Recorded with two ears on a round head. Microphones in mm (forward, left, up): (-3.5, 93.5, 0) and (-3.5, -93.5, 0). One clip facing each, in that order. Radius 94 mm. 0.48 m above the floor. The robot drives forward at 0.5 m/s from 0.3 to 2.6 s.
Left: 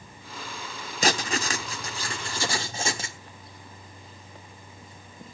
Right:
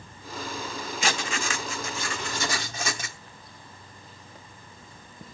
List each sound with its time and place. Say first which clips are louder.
1.0 s writing: left 5 dB; 35° left (ahead or behind), 1.1 m; by 3.2 s 30° left (ahead or behind), 1.3 m